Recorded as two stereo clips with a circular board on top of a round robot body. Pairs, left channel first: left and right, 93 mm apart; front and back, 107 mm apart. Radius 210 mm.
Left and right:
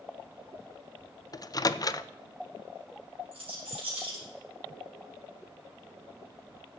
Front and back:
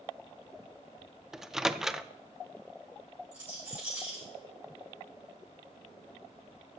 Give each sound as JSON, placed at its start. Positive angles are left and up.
{"t": 1.3, "sound": "a microwave", "azimuth_deg": 95, "distance_m": 0.6}
{"t": 3.3, "sound": "a rattle", "azimuth_deg": -100, "distance_m": 5.5}